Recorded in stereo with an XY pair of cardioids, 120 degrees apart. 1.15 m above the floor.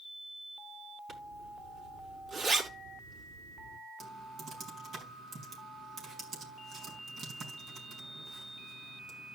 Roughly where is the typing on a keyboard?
Ahead right.